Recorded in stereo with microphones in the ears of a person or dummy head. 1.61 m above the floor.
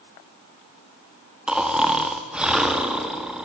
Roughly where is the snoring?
Centre.